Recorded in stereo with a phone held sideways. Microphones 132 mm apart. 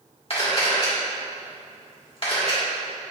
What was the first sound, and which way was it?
A camera shutter, 45° left (ahead or behind).